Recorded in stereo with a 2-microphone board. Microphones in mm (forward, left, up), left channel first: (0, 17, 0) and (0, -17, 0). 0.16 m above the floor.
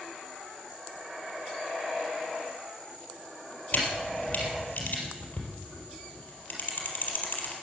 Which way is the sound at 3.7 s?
50° left (ahead or behind).